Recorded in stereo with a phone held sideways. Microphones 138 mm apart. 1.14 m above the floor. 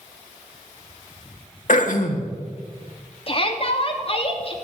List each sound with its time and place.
1.7 s throat clearing: 70° left (ahead or behind), 1.8 m
3.3 s a shout: 45° left (ahead or behind), 3 m